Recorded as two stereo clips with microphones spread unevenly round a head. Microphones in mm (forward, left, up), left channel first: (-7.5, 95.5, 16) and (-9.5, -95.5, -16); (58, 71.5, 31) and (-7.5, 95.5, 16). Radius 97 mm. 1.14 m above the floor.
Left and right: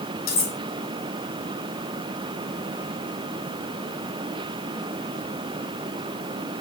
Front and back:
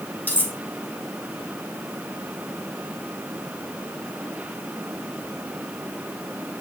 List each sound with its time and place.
0.3 s cutlery clinking: 45° left, 6.5 m